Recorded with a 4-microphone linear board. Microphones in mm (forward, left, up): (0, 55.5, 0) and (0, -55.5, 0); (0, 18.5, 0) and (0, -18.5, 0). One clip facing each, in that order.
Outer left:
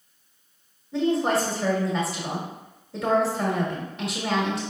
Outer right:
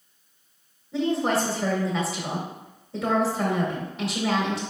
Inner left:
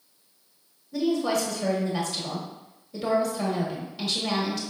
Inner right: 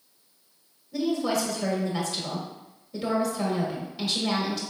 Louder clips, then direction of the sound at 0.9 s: Outer left 1 dB, inner left 1 dB; centre (ahead or behind).